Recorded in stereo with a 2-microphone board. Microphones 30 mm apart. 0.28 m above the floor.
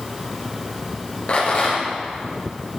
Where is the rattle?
40° left (ahead or behind), 4.5 m.